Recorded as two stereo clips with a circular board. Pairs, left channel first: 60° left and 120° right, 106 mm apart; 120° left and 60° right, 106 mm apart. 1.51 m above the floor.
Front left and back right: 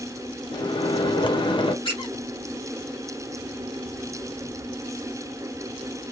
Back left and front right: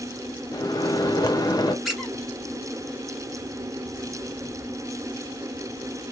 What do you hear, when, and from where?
0.5 s a microwave: 75° left, 0.6 m
1.9 s a squeak: 30° left, 1.2 m